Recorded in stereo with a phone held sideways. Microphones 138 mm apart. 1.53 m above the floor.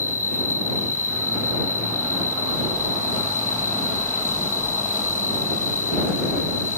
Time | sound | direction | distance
0.0 | an insect | 75° left (ahead or behind) | ?